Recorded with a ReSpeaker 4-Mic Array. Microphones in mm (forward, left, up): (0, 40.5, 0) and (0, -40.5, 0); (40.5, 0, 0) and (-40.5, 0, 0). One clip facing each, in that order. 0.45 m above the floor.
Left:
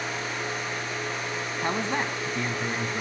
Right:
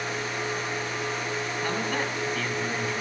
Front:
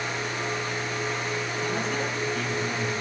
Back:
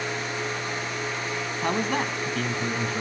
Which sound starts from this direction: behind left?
A man speaking, at 1.6 s.